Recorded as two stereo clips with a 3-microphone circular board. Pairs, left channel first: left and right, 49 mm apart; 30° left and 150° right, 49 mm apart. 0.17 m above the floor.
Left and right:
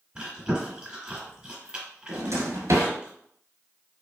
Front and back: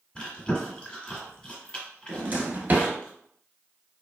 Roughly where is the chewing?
Ahead right.